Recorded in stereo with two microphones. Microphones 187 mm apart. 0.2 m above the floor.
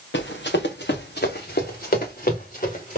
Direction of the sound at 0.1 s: 75° left (ahead or behind).